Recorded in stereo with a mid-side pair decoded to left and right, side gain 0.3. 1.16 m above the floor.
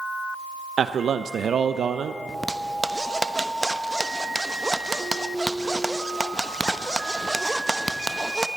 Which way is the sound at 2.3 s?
10° right.